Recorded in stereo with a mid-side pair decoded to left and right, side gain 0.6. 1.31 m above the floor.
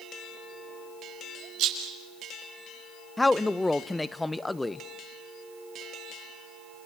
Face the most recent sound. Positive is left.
turn(degrees=10)